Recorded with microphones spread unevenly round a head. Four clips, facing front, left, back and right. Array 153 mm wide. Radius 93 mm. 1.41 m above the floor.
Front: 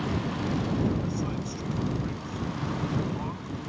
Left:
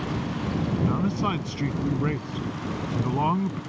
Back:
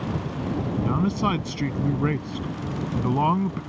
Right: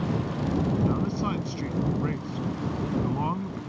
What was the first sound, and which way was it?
A man speaking, 150° left.